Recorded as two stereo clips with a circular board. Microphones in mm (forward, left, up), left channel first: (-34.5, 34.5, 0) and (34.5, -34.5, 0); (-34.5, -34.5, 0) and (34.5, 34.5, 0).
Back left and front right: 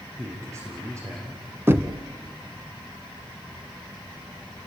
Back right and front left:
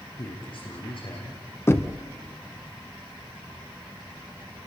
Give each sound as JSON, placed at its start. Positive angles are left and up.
{"t": 0.2, "sound": "a man speaking", "azimuth_deg": -105, "distance_m": 6.5}
{"t": 1.7, "sound": "knocking", "azimuth_deg": -95, "distance_m": 1.0}